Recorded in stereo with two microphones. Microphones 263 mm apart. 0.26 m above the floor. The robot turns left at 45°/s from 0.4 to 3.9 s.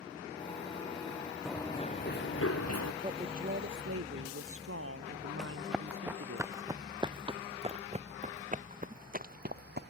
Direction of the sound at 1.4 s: Centre (ahead or behind).